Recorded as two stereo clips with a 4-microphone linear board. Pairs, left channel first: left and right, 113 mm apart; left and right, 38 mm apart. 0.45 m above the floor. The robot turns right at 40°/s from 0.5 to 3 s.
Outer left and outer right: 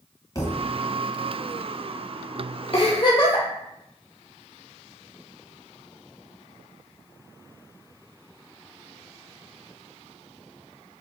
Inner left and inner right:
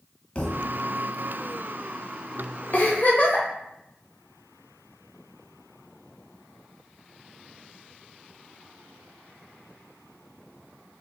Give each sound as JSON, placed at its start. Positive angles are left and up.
{"t": 0.3, "sound": "a thud", "side_deg": 30, "distance_m": 0.9}
{"t": 2.7, "sound": "a giggle", "side_deg": 55, "distance_m": 0.8}